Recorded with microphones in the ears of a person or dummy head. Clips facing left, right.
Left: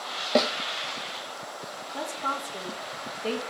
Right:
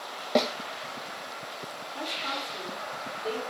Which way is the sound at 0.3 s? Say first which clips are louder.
Left 1 dB; 10° left (ahead or behind).